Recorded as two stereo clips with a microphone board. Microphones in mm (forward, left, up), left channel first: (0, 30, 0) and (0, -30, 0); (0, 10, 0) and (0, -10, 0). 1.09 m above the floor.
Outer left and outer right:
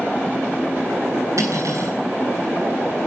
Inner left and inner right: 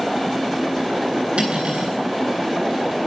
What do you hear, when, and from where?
1.4 s cutlery clinking: 60° right (ahead or behind), 9.5 m